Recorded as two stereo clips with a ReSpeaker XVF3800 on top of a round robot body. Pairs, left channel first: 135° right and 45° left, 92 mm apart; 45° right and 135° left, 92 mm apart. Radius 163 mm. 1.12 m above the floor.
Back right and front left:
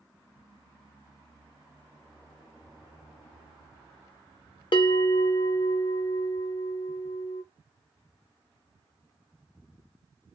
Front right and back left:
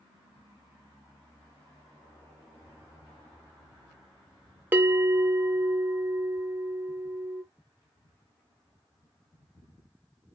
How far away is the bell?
About 0.7 m.